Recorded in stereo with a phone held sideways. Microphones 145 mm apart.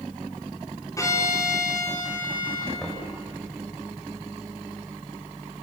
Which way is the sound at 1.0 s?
25° left (ahead or behind).